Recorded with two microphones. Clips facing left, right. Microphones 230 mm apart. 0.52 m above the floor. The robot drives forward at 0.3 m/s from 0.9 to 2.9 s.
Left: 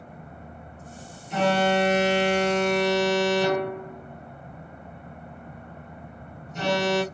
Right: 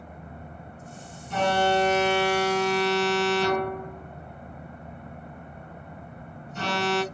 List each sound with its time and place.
1.3 s an alarm: 15° left (ahead or behind), 1.1 m; by 7.0 s 20° left (ahead or behind), 0.8 m